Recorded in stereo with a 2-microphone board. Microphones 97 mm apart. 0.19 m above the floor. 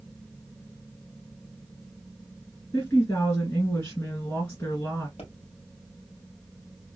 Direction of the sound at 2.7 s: 30° left (ahead or behind).